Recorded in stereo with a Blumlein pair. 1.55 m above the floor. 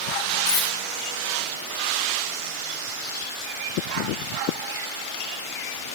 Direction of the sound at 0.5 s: 50° left.